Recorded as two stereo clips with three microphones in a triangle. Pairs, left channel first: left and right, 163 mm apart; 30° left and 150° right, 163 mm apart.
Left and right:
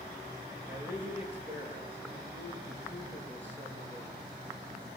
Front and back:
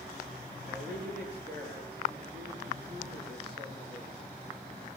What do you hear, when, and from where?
0.7 s a man speaking: 170° right, 9 m